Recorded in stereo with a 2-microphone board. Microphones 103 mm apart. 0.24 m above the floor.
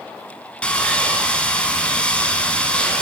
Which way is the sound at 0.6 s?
10° left (ahead or behind).